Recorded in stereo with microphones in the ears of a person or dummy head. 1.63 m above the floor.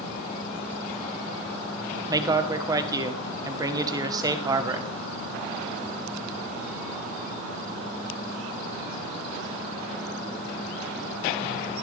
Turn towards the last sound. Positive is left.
turn(degrees=-15)  # may be behind; listen again after turning